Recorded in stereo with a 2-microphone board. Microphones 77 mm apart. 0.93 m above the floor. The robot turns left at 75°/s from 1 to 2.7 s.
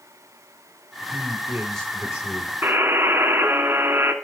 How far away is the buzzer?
About 2 m.